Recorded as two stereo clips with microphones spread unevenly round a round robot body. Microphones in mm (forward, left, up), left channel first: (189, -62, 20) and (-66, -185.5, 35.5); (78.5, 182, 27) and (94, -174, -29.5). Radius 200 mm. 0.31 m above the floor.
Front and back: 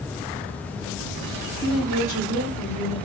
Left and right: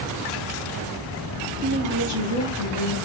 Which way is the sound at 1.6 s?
70° left.